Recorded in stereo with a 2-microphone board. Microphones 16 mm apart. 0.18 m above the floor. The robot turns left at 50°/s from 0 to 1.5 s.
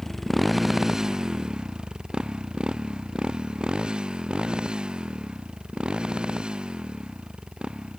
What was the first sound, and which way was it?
A motorcycle, 15° left (ahead or behind).